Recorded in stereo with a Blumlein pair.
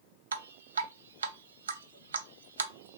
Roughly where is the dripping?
Ahead right.